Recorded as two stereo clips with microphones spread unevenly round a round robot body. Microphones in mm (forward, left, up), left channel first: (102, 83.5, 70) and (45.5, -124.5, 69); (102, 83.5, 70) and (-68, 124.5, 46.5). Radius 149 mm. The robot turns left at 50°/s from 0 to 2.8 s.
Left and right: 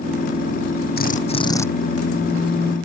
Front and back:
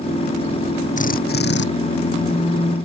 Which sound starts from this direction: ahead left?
A drill, at 1.0 s.